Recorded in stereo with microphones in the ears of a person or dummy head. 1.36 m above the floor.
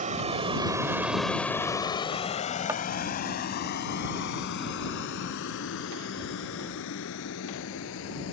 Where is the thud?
10° right (ahead or behind).